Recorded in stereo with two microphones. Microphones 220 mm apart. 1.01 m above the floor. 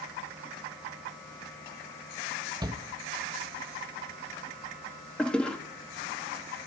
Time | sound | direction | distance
2.6 | a shout | 15° right (ahead or behind) | 1.6 m
5.2 | a toilet flushing | 5° left (ahead or behind) | 1.9 m